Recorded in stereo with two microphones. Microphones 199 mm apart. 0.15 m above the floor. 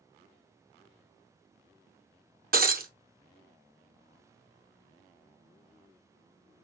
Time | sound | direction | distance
2.5 | breaking glass | 45° right (ahead or behind) | 0.8 m